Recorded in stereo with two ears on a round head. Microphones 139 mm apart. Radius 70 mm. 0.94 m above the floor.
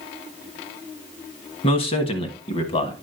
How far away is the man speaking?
About 1.2 m.